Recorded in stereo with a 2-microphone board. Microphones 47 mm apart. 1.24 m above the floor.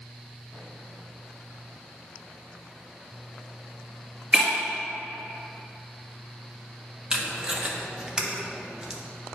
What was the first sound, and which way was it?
Breaking glass, 15° right (ahead or behind).